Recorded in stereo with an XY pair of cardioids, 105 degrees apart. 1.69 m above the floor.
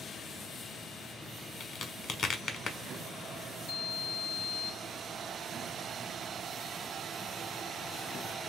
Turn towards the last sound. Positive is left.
turn(degrees=45)